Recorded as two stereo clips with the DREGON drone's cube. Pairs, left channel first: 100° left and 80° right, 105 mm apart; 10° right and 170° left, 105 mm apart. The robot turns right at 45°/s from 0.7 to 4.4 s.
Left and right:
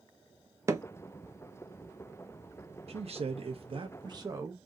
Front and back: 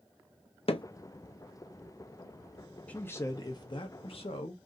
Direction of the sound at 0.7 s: 15° right.